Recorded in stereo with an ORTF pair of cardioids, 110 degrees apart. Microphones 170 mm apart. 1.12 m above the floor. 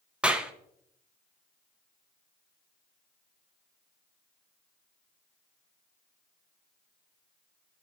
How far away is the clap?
About 0.6 m.